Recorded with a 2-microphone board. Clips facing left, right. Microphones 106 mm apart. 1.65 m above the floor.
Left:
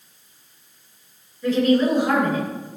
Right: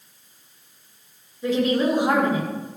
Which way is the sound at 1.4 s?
20° right (ahead or behind).